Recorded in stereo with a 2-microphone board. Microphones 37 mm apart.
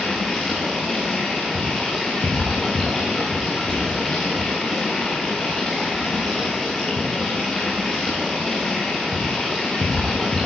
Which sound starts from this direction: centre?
Running water, at 0.0 s.